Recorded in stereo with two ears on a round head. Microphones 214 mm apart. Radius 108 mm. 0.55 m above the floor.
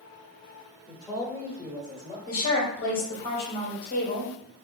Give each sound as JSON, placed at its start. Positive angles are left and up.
{"t": 0.9, "sound": "a man speaking", "side_deg": 20, "distance_m": 1.7}
{"t": 2.3, "sound": "a woman speaking", "side_deg": 40, "distance_m": 1.7}